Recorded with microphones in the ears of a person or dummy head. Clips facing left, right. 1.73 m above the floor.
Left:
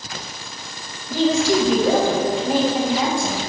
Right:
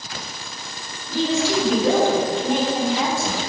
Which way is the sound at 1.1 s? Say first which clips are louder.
Left 3 dB; 20° left (ahead or behind).